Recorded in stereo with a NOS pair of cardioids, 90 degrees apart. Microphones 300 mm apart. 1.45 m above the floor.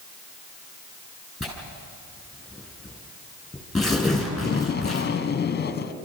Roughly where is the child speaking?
No child speaking in this recording.